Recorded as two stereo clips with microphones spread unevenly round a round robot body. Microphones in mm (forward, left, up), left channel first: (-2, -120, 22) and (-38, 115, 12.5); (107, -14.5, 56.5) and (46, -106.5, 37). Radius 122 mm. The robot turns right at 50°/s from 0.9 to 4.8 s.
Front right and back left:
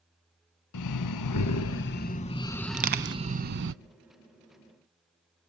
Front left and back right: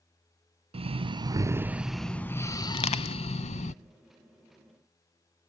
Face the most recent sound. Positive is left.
turn(degrees=140)